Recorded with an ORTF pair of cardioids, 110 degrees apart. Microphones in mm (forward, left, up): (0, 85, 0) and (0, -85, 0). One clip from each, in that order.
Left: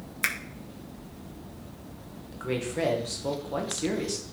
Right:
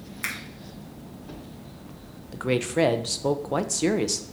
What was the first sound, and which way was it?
A finger snap, 30° left.